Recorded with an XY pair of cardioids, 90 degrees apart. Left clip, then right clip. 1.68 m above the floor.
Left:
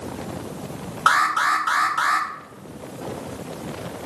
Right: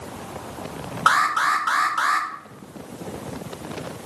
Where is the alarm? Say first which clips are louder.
Even; straight ahead, 0.7 m.